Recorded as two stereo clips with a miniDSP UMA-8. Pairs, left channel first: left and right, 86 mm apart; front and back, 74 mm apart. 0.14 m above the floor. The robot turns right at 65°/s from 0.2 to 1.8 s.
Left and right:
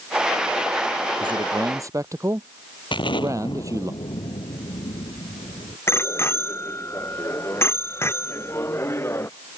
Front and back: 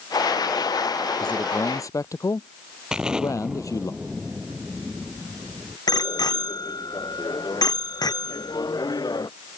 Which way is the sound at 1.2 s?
80° right.